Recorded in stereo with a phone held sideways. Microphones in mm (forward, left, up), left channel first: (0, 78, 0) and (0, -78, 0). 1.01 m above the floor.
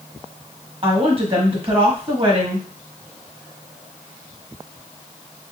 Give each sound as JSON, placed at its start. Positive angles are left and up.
{"t": 0.8, "sound": "a woman speaking", "side_deg": -40, "distance_m": 1.4}